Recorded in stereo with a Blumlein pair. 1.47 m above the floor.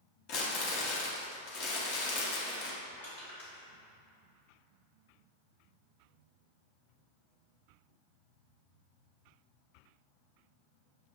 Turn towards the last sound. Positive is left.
turn(degrees=70)